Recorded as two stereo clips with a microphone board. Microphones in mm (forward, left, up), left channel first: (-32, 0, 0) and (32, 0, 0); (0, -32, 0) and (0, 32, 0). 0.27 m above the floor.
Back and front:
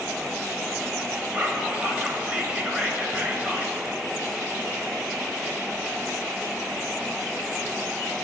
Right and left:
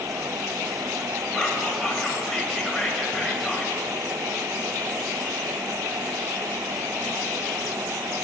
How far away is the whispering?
About 0.9 m.